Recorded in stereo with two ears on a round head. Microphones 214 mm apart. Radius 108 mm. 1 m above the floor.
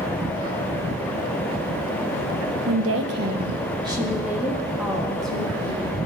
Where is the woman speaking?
70° right (ahead or behind), 0.9 m; by 6.0 s 5° left (ahead or behind), 3 m.